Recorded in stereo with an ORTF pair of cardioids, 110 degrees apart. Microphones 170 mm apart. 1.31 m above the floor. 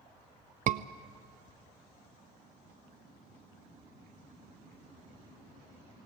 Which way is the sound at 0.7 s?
50° right.